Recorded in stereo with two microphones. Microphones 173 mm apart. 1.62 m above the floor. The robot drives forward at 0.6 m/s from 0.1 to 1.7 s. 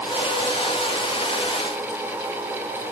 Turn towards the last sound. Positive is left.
No sound to turn to.